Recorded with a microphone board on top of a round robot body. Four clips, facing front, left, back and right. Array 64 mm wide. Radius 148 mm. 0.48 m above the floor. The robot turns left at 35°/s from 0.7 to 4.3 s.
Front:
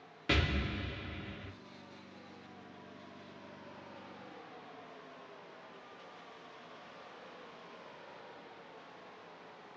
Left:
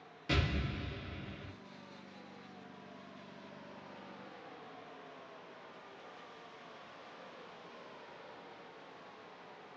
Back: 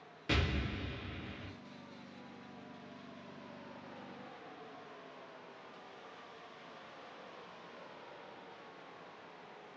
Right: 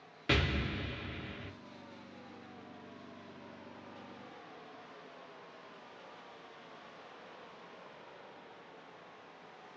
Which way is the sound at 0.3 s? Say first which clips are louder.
Right 3 dB, front 2 dB; 70° right.